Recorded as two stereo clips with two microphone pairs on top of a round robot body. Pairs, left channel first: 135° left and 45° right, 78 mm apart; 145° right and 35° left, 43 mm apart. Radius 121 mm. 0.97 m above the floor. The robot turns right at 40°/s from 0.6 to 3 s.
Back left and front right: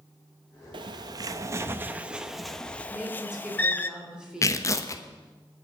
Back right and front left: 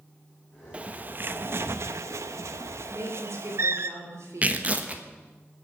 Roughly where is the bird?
Ahead right.